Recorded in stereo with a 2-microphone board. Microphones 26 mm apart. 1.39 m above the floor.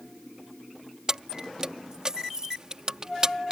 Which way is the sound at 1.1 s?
30° right (ahead or behind).